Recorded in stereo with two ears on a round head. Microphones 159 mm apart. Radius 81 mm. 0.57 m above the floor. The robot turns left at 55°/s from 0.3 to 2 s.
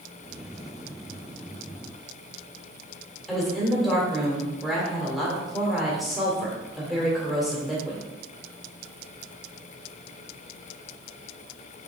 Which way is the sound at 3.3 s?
Centre (ahead or behind).